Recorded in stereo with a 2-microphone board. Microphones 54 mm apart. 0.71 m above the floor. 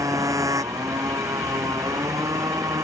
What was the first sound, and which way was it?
A motorcycle, 75° right (ahead or behind).